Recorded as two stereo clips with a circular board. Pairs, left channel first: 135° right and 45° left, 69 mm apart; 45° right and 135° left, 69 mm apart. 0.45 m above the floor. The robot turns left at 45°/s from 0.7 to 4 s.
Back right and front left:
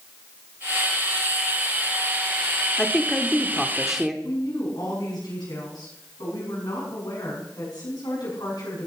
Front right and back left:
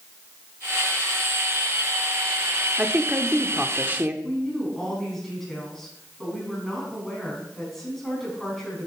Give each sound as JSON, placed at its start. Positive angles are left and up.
{"t": 2.8, "sound": "a woman speaking", "azimuth_deg": 175, "distance_m": 0.8}
{"t": 4.2, "sound": "a woman speaking", "azimuth_deg": -130, "distance_m": 4.5}